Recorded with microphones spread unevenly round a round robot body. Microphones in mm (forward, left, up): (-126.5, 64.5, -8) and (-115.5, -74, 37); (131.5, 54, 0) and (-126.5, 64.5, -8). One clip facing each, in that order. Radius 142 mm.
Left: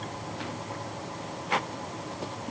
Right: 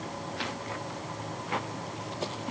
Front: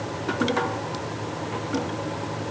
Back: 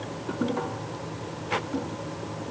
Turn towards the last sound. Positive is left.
No sound to turn to.